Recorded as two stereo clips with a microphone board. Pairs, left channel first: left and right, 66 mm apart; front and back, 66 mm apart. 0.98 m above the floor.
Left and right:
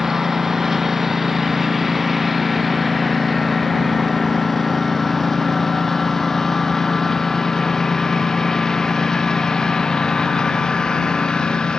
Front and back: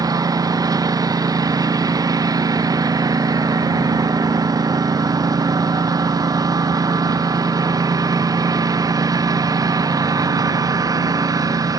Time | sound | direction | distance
0.0 | a lawn mower | 175° right | ?